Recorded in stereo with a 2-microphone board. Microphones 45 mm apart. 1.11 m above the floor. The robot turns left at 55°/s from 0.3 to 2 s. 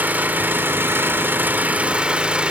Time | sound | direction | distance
0.0 | an engine running | 50° right | 1.0 m